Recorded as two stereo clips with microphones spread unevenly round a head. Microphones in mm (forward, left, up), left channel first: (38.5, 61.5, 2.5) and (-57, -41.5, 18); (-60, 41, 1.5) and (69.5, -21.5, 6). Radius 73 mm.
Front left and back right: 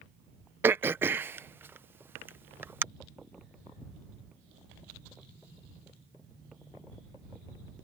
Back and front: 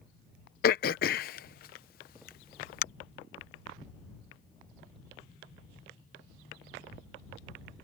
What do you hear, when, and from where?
0.6 s throat clearing: 150° left